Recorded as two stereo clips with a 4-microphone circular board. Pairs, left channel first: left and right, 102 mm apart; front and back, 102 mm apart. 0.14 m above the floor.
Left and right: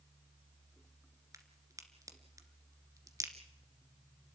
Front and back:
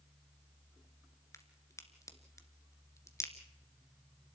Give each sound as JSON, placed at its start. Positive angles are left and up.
{"t": 1.3, "sound": "a crack", "azimuth_deg": -45, "distance_m": 1.9}